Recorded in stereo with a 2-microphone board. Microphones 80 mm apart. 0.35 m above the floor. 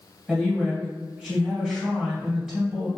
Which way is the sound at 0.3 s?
15° right (ahead or behind).